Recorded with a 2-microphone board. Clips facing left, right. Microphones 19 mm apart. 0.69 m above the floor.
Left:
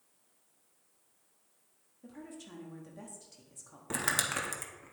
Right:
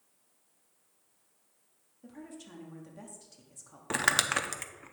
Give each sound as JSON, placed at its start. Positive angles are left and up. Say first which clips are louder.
{"t": 2.0, "sound": "a woman speaking", "louder": "right 1 dB", "side_deg": -5, "distance_m": 1.0}
{"t": 3.9, "sound": "crumpling", "louder": "right 5 dB", "side_deg": -30, "distance_m": 0.6}